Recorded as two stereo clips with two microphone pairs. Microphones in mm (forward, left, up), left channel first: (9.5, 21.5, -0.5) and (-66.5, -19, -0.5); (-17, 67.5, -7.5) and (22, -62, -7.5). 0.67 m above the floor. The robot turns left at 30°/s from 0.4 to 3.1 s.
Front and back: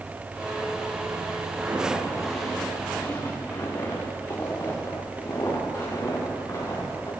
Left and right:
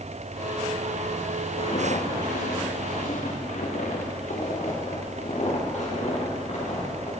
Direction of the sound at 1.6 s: 145° left.